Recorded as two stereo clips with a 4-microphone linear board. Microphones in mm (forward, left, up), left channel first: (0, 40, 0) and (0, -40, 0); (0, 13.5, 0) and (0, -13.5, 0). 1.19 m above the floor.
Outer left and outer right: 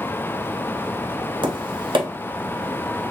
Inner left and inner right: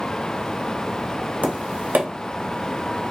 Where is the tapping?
80° right, 0.8 m.